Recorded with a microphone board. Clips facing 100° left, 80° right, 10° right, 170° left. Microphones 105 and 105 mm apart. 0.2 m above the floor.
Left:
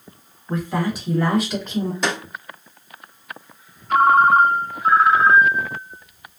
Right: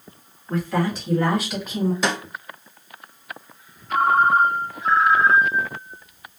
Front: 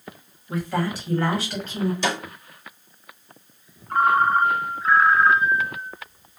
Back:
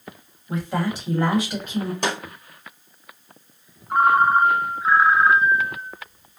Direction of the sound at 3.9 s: 95° left.